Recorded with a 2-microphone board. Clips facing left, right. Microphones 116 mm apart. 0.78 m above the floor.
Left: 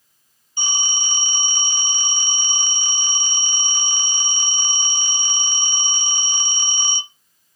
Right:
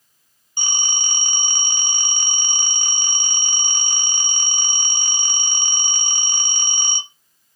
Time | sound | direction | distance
0.6 | a phone ringing | 60° right (ahead or behind) | 0.6 m